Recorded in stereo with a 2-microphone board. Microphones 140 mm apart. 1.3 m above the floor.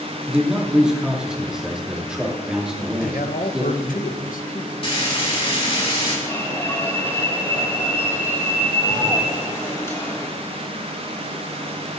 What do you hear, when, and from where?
0.3 s a man speaking: 5° right (ahead or behind), 2.5 m
3.0 s a man speaking: 80° left, 1.0 m
4.8 s frying: 40° left (ahead or behind), 3 m
6.3 s an alarm: 20° left (ahead or behind), 3 m